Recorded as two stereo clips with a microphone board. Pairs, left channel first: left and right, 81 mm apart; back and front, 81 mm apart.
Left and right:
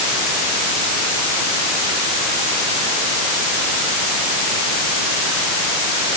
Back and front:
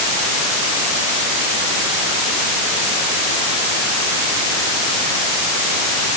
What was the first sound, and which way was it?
Only background noise.